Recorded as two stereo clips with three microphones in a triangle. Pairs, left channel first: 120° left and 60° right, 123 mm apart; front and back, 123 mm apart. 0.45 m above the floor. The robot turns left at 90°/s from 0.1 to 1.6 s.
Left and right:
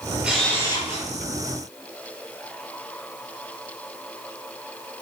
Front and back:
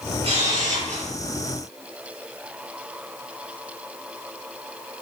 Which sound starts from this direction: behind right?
A camera shutter, at 0.2 s.